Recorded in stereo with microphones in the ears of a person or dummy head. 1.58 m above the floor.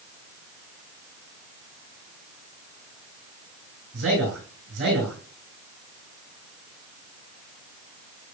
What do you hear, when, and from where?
3.9 s a man speaking: 60° right (ahead or behind), 5.5 m